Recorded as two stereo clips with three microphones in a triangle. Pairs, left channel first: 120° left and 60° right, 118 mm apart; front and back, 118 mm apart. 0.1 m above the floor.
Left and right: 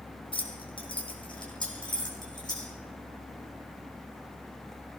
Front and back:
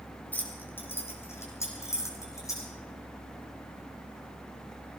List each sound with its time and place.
0.3 s keys jangling: 75° left, 3 m; by 2.7 s 65° left, 4.5 m